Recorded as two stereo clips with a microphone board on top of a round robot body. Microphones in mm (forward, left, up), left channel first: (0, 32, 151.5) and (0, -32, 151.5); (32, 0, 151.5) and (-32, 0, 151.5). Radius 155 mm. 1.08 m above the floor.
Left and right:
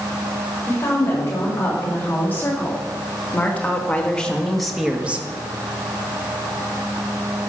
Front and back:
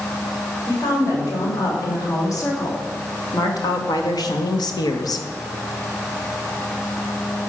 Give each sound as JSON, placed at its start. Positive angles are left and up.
{"t": 0.7, "sound": "a woman speaking", "azimuth_deg": 35, "distance_m": 4.5}